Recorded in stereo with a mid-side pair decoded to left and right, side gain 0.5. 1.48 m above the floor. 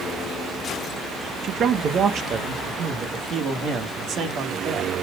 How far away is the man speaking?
About 1.2 m.